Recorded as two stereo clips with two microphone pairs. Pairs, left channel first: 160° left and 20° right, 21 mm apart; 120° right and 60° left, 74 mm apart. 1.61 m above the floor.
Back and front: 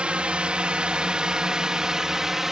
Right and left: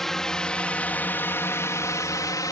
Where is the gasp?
I don't hear a gasp.